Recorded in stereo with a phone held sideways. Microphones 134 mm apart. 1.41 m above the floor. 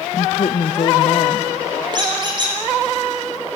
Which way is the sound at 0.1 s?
60° left (ahead or behind).